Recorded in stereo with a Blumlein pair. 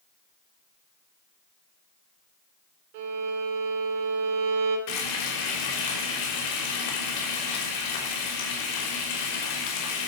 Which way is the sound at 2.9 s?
50° right.